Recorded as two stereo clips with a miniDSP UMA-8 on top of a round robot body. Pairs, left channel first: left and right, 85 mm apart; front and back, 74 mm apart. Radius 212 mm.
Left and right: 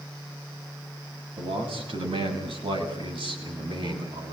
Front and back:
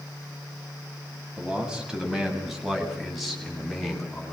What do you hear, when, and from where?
1.4 s a man speaking: 100° right, 6.5 m; by 4.3 s 80° right, 7.5 m